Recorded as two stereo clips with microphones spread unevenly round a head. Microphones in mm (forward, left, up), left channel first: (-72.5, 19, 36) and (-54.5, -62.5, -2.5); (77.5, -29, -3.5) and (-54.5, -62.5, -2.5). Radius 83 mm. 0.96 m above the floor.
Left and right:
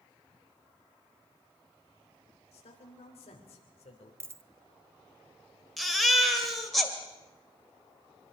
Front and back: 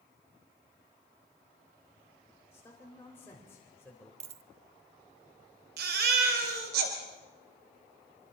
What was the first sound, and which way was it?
A man speaking, 90° left.